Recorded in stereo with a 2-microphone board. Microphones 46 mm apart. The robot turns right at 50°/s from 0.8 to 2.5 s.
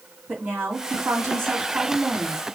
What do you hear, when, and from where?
0.3 s a woman speaking: 110° right, 2 m; by 2.4 s 25° right, 2 m